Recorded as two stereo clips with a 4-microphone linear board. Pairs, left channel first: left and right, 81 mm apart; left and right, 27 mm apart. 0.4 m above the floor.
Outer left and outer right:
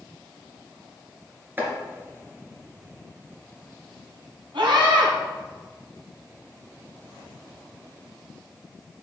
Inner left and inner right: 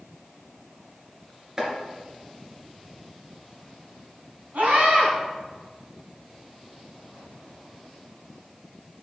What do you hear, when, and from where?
1.6 s chopping: 25° right (ahead or behind), 2.5 m
4.5 s a scream: 70° right (ahead or behind), 3.5 m